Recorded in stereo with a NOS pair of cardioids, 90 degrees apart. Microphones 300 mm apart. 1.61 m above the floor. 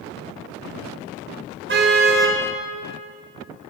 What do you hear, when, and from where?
1.7 s a car horn: 40° right, 4 m